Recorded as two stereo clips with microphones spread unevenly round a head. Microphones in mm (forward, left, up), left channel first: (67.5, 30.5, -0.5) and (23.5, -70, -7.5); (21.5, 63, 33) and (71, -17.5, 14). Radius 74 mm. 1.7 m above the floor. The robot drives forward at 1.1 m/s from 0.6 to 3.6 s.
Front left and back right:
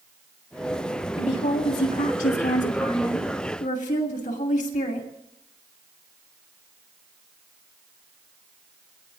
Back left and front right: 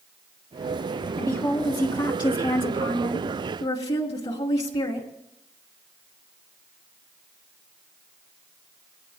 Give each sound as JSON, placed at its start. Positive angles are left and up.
{"t": 1.2, "sound": "a woman speaking", "azimuth_deg": 60, "distance_m": 3.5}